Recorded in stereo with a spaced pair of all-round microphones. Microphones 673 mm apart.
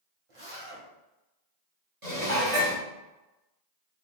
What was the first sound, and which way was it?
A zipper, 50° right (ahead or behind).